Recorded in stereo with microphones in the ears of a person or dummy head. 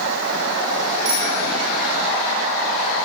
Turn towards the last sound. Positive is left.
turn(degrees=-65)  # may be behind; listen again after turning